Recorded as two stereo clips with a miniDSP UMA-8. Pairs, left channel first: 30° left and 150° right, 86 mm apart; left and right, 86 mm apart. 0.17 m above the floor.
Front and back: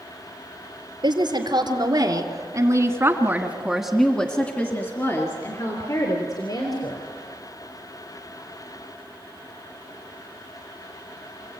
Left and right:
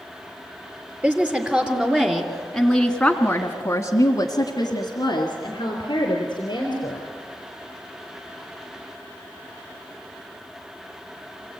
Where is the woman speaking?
160° right, 3.5 m; by 7.0 s 60° left, 4 m.